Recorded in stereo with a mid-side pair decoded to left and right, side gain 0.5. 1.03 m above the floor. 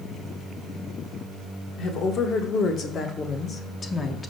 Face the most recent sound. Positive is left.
turn(degrees=30)